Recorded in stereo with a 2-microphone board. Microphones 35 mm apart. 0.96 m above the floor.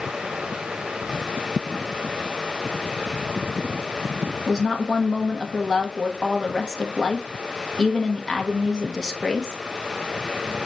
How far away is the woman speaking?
About 1.0 m.